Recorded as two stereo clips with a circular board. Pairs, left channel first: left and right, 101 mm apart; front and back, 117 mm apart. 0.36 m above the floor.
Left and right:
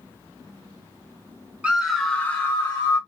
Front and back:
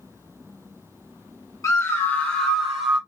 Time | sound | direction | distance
1.6 | a scream | 25° right | 1.0 m